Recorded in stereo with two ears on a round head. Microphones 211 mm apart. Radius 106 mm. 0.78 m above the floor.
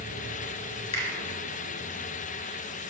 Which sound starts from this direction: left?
A finger snap, at 0.9 s.